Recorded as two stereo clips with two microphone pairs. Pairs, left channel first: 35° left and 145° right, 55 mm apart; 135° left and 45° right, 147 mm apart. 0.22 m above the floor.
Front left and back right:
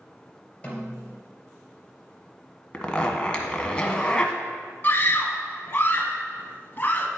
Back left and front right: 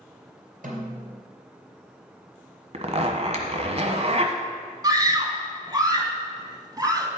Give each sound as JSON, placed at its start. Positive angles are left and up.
{"t": 0.6, "sound": "a snare drum", "azimuth_deg": -35, "distance_m": 3.0}
{"t": 2.7, "sound": "a zipper", "azimuth_deg": -30, "distance_m": 1.3}
{"t": 4.8, "sound": "a scream", "azimuth_deg": 5, "distance_m": 1.6}